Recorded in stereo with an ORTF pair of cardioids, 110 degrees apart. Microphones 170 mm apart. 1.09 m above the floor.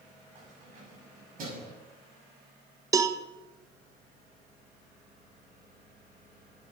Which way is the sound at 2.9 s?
20° right.